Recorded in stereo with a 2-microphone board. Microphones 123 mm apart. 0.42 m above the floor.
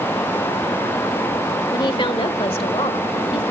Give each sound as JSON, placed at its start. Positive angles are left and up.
{"t": 1.7, "sound": "a woman speaking", "side_deg": 40, "distance_m": 1.2}